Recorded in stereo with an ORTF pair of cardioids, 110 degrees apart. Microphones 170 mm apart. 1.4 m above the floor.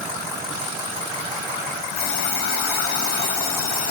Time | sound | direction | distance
1.9 | an alarm clock | 65° left | 7.5 m